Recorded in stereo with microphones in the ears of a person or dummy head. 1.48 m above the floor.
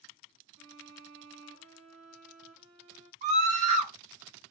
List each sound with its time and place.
0.6 s a violin: 65° right (ahead or behind), 1.5 m
3.2 s a scream: 40° right (ahead or behind), 1.3 m